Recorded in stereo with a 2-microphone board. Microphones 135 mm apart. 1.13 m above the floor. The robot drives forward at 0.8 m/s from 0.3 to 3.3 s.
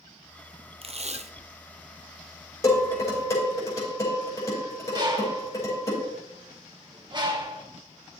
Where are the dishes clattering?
25° left (ahead or behind), 4 m; by 5.9 s 20° left (ahead or behind), 4.5 m.